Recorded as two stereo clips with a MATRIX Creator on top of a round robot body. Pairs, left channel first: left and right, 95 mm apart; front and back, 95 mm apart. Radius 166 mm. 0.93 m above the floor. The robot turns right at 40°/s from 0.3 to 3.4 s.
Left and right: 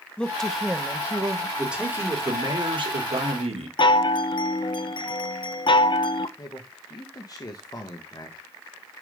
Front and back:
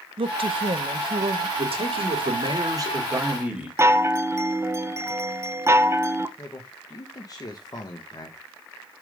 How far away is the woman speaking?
About 0.9 m.